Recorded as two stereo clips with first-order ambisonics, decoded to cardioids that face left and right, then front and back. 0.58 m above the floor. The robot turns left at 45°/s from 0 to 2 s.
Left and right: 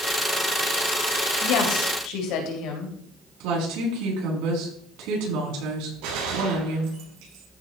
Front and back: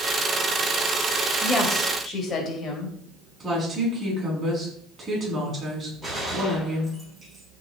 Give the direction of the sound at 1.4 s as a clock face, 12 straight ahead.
9 o'clock.